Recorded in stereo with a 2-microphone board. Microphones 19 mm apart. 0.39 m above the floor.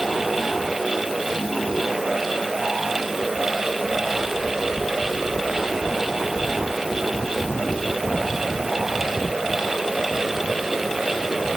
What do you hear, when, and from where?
Only background noise.